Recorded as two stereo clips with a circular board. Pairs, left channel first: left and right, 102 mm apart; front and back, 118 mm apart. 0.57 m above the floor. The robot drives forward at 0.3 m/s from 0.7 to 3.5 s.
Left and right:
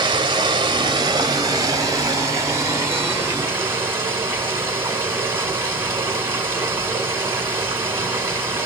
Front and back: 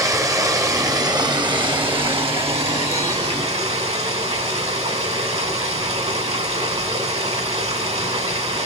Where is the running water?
125° right, 0.8 m; by 8.7 s 155° right, 1.4 m.